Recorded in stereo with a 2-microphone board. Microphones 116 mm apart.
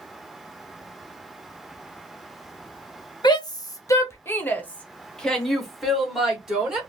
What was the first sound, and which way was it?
A shout, 40° left (ahead or behind).